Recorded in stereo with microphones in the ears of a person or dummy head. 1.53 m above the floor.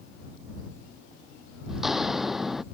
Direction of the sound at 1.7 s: 5° right (ahead or behind).